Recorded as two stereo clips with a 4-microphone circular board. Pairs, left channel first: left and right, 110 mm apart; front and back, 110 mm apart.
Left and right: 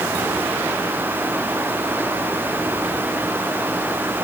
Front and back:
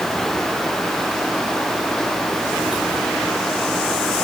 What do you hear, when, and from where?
Only background noise.